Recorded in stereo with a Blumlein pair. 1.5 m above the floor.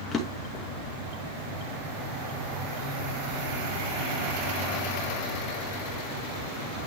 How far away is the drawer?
About 1.9 m.